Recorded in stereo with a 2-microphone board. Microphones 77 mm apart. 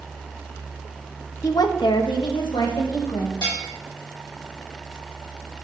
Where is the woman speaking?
45° left (ahead or behind), 0.7 m; by 3.3 s 70° left (ahead or behind), 2.5 m.